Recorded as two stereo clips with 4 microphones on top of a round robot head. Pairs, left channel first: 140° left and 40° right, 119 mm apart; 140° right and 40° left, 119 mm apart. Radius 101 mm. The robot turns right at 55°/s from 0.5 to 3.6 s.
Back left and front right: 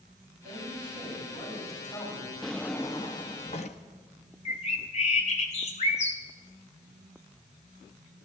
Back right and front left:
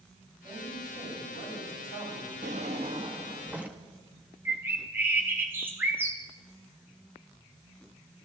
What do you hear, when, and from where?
0.4 s a man speaking: 15° right, 8 m; by 2.3 s 85° left, 8 m
2.4 s a drawer: 55° left, 0.6 m; by 3.8 s 120° left, 0.6 m
4.5 s a bird: 115° left, 2 m